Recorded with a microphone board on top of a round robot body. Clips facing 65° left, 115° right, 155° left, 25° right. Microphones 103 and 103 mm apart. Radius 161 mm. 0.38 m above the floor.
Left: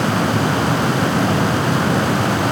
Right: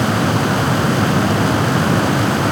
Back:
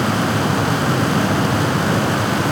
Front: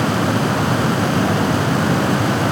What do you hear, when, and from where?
Only background noise.